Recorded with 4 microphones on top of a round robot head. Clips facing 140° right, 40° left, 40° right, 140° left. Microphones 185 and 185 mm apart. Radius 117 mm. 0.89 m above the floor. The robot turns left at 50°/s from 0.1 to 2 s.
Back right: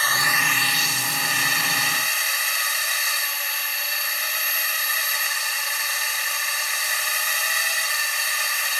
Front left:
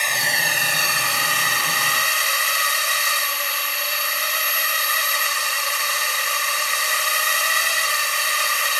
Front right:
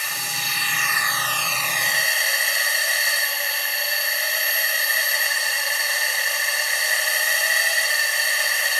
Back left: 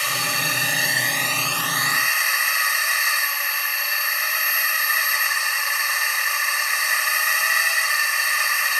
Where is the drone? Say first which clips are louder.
Front left 1 dB, back left 6 dB; 115° left; by 8.8 s 20° left.